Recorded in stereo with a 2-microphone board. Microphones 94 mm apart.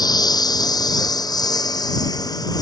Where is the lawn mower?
50° left (ahead or behind); by 2.6 s 45° left (ahead or behind).